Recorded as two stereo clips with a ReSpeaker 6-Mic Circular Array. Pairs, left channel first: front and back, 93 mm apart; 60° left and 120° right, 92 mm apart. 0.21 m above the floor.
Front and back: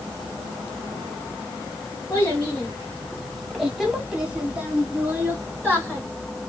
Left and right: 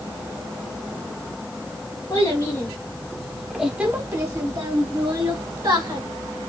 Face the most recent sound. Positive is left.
turn(degrees=-115)